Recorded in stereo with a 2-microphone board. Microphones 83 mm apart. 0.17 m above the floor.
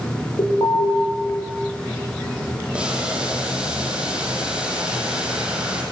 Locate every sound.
0.4 s an alarm: 65° left (ahead or behind), 8 m
2.7 s boiling: 10° right (ahead or behind), 4 m